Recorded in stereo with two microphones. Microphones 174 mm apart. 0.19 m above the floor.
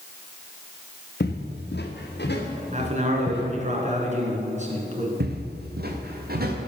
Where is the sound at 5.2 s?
70° right (ahead or behind), 1.7 m; by 6.6 s 65° right (ahead or behind), 2.5 m.